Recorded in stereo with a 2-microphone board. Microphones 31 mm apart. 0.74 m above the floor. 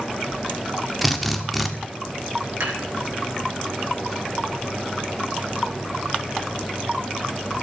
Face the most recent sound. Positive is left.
turn(degrees=-70)  # may be behind; listen again after turning